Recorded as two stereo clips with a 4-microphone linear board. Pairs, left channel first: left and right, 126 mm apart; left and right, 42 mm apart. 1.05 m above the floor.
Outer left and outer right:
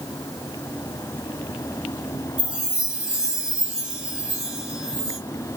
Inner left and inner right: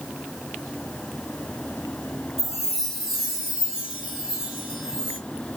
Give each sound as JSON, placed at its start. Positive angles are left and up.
{"t": 2.4, "sound": "a chime", "side_deg": -10, "distance_m": 1.2}